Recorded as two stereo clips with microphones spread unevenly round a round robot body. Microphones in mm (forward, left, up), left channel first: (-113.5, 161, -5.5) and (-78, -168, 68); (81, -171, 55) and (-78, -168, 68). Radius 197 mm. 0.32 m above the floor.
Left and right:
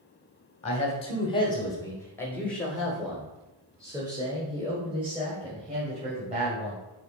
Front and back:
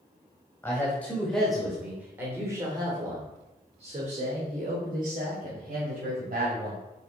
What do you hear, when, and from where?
0.6 s a man speaking: 60° left, 1.7 m; by 6.8 s 160° right, 3 m